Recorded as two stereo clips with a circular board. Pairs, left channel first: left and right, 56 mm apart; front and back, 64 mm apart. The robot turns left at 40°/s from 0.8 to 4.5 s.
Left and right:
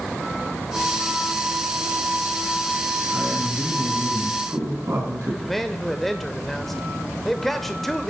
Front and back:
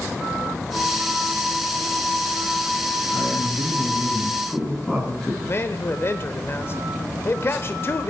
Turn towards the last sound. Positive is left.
turn(degrees=5)